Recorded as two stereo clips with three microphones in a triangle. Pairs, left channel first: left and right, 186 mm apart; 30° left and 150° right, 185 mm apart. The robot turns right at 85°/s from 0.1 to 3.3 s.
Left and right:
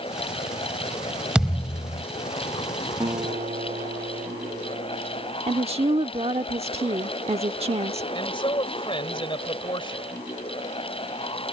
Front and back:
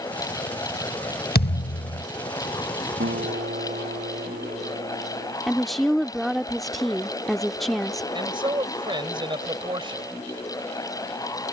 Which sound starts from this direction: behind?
A guitar, at 3.0 s.